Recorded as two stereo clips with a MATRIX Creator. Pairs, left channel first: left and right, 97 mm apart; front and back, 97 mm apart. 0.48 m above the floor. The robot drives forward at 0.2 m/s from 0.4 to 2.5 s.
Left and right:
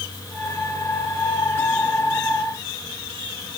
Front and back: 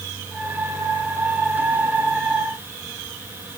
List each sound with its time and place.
Only background noise.